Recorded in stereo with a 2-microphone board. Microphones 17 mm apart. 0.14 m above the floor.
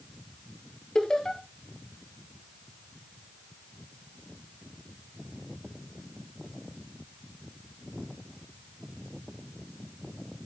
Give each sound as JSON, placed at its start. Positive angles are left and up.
{"t": 0.9, "sound": "laughter", "side_deg": 35, "distance_m": 2.5}